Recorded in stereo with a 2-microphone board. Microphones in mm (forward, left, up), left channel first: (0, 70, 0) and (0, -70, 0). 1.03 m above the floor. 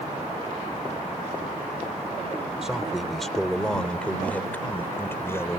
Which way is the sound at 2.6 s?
5° right (ahead or behind).